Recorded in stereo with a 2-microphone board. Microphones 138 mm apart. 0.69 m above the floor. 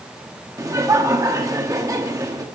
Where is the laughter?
25° right (ahead or behind), 0.8 m.